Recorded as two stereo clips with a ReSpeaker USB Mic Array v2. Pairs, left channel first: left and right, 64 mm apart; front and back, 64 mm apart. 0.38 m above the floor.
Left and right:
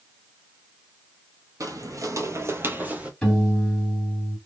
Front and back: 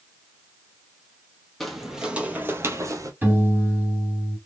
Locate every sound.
1.6 s footsteps: 85° right, 0.7 m; by 3.1 s 160° right, 0.7 m
3.2 s a piano: 160° left, 1.3 m